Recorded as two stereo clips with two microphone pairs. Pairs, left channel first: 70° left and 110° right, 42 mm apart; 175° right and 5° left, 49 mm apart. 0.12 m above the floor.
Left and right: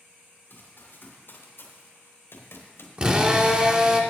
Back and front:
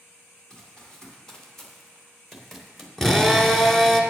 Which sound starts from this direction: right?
A drill, at 3.0 s.